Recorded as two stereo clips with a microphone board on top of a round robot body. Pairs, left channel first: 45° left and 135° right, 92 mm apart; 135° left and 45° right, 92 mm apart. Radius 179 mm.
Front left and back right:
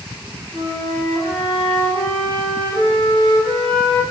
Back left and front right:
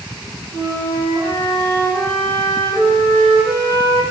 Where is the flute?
15° right, 1.2 m.